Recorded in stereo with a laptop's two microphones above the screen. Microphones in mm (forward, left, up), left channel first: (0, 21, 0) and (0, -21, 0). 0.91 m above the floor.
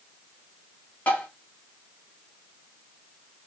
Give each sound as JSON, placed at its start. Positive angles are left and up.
{"t": 1.1, "sound": "tapping", "side_deg": 45, "distance_m": 1.3}